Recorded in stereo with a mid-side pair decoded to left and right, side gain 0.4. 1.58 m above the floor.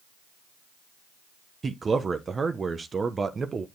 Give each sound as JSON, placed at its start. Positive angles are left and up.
{"t": 1.6, "sound": "a man speaking", "azimuth_deg": -40, "distance_m": 1.0}